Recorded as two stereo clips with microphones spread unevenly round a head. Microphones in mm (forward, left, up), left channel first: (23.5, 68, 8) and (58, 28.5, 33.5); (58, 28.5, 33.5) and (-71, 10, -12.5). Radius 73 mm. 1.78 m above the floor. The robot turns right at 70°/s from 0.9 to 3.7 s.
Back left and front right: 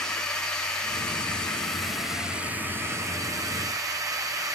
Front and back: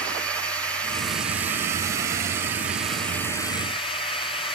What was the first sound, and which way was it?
A drone, 110° left.